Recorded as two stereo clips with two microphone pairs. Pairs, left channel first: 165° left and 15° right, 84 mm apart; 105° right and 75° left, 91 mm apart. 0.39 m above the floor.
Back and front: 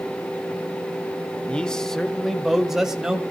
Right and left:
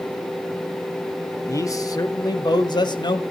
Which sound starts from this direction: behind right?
A man speaking, at 1.5 s.